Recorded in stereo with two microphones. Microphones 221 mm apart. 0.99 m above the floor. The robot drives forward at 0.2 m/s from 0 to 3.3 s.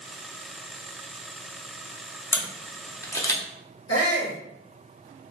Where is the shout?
75° left (ahead or behind), 1.0 m.